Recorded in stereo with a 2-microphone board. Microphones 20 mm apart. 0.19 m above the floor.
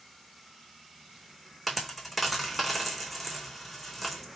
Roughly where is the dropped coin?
Centre.